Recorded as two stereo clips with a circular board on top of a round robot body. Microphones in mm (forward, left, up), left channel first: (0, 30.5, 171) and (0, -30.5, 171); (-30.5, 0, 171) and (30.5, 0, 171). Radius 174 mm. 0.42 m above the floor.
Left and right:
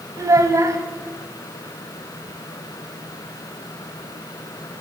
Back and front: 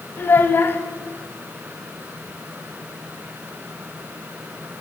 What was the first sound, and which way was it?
A child speaking, 125° right.